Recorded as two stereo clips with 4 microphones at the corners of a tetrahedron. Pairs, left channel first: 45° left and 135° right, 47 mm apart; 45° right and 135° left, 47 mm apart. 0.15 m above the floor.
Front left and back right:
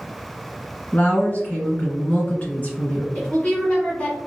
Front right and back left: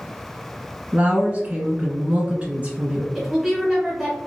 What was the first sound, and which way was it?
A woman speaking, 90° left.